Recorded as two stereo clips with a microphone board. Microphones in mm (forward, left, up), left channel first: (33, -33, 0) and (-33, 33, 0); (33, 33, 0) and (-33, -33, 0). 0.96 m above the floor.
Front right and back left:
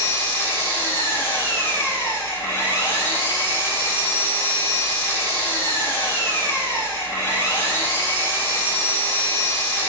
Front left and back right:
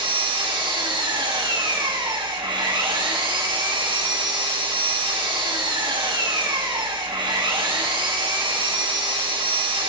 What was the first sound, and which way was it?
An engine running, 105° right.